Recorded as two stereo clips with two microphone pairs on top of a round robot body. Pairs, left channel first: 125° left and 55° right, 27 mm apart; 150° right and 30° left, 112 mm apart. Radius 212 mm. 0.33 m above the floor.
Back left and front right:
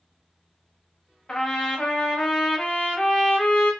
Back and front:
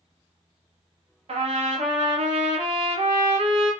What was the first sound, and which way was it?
A trumpet, 60° left.